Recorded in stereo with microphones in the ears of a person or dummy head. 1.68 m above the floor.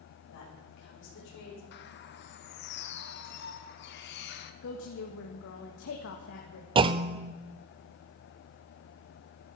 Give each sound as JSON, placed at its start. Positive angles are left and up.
{"t": 0.3, "sound": "a woman speaking", "side_deg": 60, "distance_m": 7.0}
{"t": 1.7, "sound": "a bird", "side_deg": 60, "distance_m": 1.5}
{"t": 4.6, "sound": "a woman speaking", "side_deg": 60, "distance_m": 1.7}
{"t": 6.8, "sound": "a clunk", "side_deg": -30, "distance_m": 0.6}